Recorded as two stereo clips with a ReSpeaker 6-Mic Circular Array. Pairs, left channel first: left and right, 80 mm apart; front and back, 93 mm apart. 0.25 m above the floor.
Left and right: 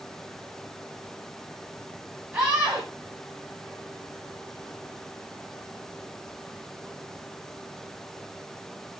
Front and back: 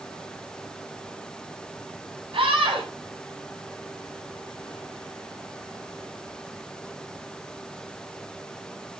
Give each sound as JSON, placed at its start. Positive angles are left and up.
{"t": 2.3, "sound": "a scream", "azimuth_deg": -155, "distance_m": 9.0}